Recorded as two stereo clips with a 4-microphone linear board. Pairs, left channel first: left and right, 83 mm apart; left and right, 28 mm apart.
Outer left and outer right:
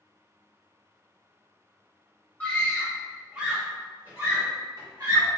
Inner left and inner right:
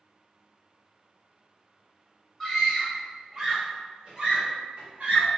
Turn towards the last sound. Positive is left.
turn(degrees=-50)  # may be behind; listen again after turning